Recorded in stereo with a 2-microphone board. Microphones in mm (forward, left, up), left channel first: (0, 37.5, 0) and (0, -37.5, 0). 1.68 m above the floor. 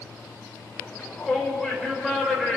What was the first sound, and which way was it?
A shout, 10° left (ahead or behind).